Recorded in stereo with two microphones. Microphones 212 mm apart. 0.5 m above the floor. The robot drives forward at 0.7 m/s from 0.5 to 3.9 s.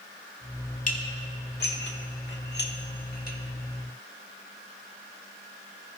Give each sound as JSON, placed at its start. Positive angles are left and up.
{"t": 0.9, "sound": "dishes clattering", "side_deg": 40, "distance_m": 1.4}